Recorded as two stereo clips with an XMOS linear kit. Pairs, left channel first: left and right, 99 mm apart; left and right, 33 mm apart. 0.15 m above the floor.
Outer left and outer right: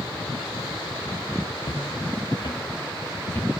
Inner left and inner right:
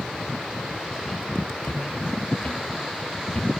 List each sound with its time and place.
1.6 s footsteps: 85° left, 1.8 m; by 3.6 s 20° left (ahead or behind), 2.5 m